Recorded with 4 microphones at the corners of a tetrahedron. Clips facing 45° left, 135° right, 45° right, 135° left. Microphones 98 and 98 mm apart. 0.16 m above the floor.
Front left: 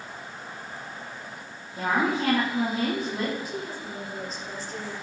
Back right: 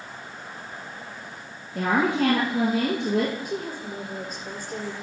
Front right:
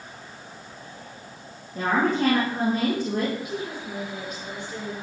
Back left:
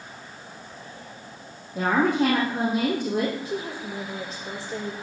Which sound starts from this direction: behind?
A woman speaking, at 3.5 s.